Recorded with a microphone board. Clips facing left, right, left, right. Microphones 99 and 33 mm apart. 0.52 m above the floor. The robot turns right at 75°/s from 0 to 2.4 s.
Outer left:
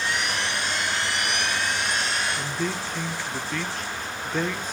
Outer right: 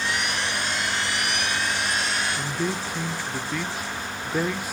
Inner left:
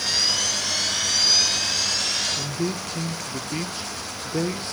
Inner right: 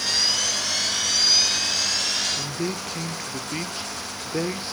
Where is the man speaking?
10° right (ahead or behind), 0.8 m.